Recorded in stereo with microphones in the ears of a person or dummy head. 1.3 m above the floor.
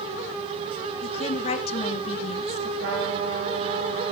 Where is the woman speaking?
40° left (ahead or behind), 1.5 m.